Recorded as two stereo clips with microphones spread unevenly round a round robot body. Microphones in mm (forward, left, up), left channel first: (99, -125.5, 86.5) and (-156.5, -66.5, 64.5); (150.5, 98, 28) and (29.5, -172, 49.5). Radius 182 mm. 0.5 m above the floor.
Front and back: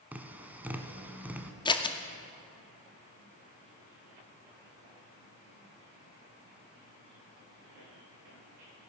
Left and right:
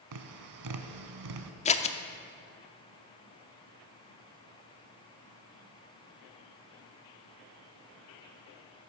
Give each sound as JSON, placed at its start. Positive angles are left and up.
{"t": 0.1, "sound": "tapping", "azimuth_deg": -105, "distance_m": 0.9}
{"t": 1.6, "sound": "scissors", "azimuth_deg": 50, "distance_m": 0.7}